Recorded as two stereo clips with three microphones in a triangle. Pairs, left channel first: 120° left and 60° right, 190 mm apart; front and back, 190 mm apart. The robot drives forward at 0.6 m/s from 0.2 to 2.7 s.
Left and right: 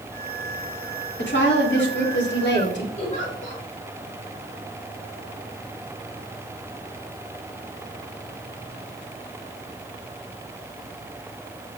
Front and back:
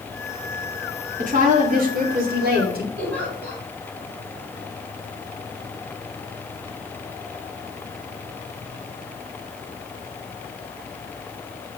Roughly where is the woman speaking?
Behind left.